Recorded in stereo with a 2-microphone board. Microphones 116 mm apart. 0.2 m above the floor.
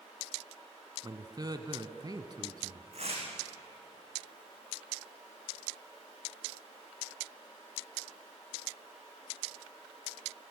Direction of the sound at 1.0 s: 35° right (ahead or behind).